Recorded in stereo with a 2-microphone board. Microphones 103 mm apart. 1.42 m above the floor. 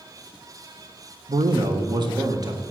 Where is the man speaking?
55° right (ahead or behind), 1.0 m; by 2.6 s 40° right (ahead or behind), 1.9 m.